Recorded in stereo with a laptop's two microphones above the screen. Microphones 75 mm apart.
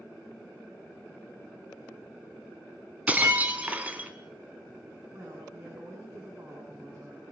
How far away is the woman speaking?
About 9.5 m.